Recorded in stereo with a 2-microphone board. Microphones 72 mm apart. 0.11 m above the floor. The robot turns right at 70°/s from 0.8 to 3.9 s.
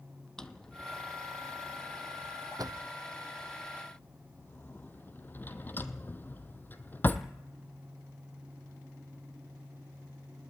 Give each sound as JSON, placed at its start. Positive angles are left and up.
{"t": 0.4, "sound": "a drawer", "side_deg": 10, "distance_m": 1.1}